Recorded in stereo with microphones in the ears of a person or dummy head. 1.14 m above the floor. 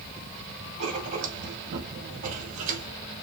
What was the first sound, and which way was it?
Writing, 45° right (ahead or behind).